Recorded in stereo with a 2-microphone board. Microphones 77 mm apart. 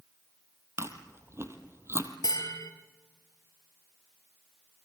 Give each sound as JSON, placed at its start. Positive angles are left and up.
{"t": 0.8, "sound": "chewing", "side_deg": -35, "distance_m": 2.0}
{"t": 2.2, "sound": "a bell", "side_deg": 55, "distance_m": 3.0}